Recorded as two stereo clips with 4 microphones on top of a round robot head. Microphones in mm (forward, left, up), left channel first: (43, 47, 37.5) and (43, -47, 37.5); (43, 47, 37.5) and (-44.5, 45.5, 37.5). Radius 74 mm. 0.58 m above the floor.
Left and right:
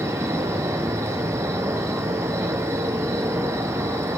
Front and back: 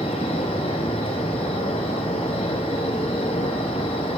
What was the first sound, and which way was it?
An insect, 30° right.